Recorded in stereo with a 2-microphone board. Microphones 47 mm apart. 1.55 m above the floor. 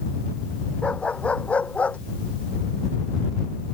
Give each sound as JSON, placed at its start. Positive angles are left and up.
{"t": 0.8, "sound": "a dog barking", "side_deg": 25}